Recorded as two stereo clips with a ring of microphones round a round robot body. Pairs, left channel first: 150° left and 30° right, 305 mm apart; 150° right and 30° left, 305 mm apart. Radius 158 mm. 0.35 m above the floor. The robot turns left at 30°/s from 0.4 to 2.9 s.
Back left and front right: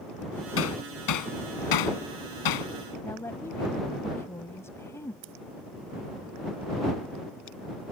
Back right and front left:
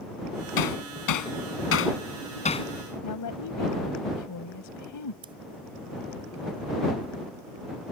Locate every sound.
0.6 s hammering: 160° right; by 2.7 s 135° left
3.0 s a woman speaking: 130° right
5.2 s scissors: 45° right